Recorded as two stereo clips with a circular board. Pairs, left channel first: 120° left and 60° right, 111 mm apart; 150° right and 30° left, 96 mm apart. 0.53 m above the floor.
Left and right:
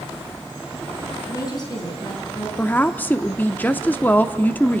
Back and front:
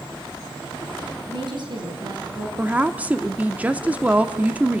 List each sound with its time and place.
1.3 s a woman speaking: 65° left, 5 m; by 2.5 s 75° left, 6 m
2.6 s a woman speaking: 75° left, 0.9 m